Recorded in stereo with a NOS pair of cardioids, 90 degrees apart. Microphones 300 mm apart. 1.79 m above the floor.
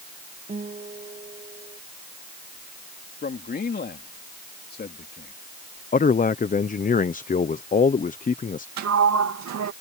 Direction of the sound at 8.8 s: 65° right.